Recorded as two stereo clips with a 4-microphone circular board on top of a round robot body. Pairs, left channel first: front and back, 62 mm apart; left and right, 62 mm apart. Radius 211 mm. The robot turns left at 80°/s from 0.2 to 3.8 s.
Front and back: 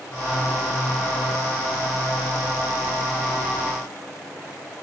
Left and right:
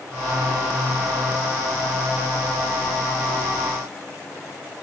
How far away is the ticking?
I don't hear ticking.